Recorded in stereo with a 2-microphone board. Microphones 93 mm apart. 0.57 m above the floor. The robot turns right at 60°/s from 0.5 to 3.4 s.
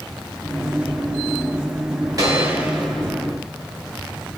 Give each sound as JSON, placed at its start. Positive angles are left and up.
{"t": 2.2, "sound": "a gunshot", "azimuth_deg": -40, "distance_m": 1.1}